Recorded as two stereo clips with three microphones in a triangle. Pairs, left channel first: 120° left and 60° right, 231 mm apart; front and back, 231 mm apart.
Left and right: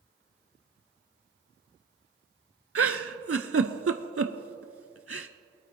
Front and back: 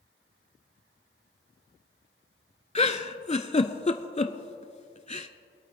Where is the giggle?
65° right, 0.5 m.